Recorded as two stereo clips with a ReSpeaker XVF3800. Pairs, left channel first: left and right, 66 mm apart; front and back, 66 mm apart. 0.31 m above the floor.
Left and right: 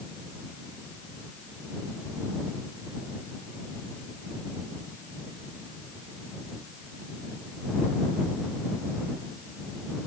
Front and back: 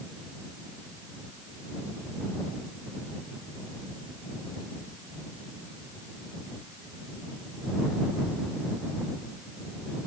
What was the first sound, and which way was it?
Only background noise.